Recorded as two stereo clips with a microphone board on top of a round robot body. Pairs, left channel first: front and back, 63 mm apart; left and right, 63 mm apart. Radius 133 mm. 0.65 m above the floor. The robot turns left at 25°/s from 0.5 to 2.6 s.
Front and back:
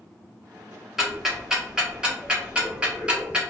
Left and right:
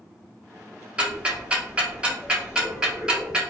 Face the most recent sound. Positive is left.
turn(degrees=-140)